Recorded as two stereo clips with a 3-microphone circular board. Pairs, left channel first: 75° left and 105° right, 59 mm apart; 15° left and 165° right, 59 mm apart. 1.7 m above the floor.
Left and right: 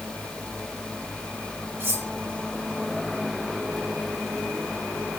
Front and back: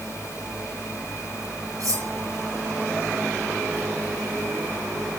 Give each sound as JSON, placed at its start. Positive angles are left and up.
{"t": 1.8, "sound": "cutlery clinking", "azimuth_deg": -145, "distance_m": 4.5}